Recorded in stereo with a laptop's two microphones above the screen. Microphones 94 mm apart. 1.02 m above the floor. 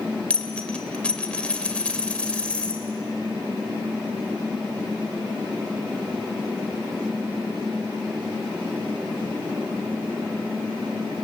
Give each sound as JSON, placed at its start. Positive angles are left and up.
{"t": 0.3, "sound": "a dropped coin", "side_deg": 15, "distance_m": 1.4}